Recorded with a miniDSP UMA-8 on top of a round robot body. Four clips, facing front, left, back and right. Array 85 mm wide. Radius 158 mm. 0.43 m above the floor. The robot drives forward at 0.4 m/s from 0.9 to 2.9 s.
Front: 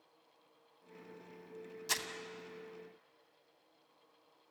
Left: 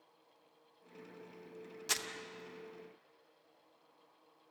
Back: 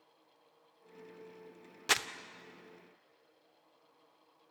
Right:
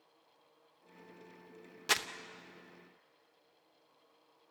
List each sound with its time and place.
1.9 s crumpling: 155° right, 0.8 m